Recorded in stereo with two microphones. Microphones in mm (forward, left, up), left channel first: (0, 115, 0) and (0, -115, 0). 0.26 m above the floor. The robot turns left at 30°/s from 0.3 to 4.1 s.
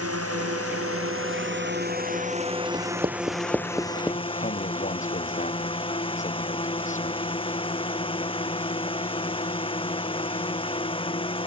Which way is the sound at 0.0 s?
90° right.